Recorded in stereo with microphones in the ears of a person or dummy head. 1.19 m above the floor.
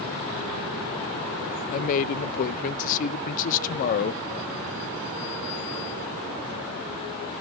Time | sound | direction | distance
1.7 | a man speaking | 40° left (ahead or behind) | 0.6 m